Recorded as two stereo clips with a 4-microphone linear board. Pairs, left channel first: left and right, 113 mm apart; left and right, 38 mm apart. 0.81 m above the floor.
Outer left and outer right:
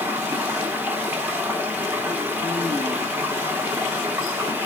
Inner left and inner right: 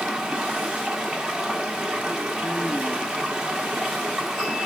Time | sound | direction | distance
0.0 | running water | 15° right (ahead or behind) | 1.0 m